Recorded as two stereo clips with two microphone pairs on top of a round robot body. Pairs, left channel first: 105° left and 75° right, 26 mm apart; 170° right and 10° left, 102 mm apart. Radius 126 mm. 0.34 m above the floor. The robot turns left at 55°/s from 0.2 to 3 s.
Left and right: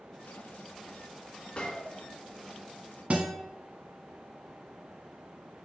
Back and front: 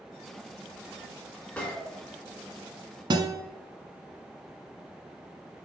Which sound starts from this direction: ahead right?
A guitar, at 3.1 s.